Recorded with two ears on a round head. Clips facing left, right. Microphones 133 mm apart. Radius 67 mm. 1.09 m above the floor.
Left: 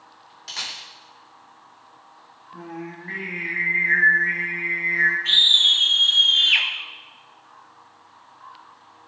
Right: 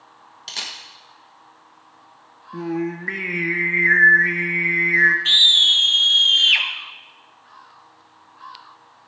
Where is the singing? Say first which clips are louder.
Right 11 dB; 70° right (ahead or behind), 0.9 m.